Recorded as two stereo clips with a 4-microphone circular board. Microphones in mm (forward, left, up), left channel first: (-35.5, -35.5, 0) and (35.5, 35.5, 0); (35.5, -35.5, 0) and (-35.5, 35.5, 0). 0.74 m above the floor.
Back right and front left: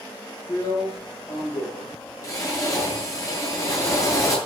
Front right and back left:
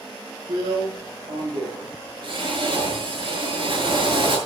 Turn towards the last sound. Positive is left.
turn(degrees=170)